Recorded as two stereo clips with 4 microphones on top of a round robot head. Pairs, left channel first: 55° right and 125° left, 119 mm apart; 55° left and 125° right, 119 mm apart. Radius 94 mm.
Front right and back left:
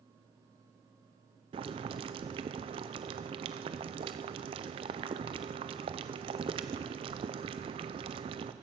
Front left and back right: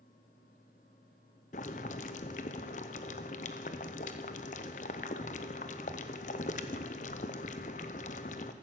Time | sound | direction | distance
1.5 | boiling | 80° left | 0.5 m